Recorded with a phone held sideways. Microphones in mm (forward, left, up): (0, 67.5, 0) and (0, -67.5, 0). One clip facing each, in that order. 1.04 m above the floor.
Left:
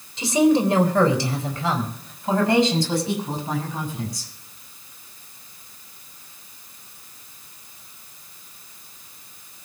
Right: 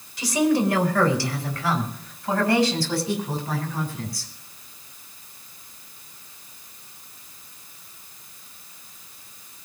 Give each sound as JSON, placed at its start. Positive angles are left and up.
{"t": 0.2, "sound": "a woman speaking", "side_deg": 25, "distance_m": 3.5}